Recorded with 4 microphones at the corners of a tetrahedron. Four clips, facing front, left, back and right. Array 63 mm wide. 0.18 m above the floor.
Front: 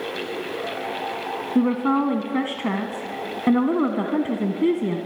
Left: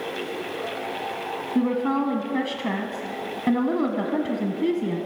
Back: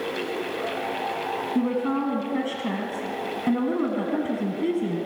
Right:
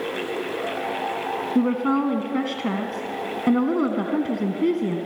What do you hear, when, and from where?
1.6 s a woman speaking: 10° right, 1.2 m